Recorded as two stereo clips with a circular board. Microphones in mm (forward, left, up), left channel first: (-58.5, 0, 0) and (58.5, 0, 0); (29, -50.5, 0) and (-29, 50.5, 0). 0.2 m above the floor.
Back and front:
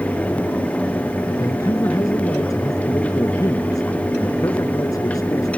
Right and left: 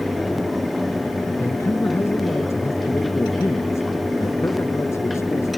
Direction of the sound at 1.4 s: 125° right.